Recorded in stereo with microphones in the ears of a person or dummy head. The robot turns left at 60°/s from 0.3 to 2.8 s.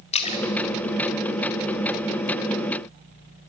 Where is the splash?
35° left (ahead or behind), 1.7 m; by 2.3 s 15° left (ahead or behind), 1.7 m.